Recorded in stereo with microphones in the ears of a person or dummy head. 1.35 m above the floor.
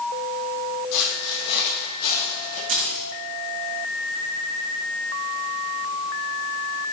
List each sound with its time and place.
0.9 s footsteps: 60° left (ahead or behind), 2.5 m; by 2.6 s 40° left (ahead or behind), 3 m
2.7 s keys jangling: 35° right (ahead or behind), 1.4 m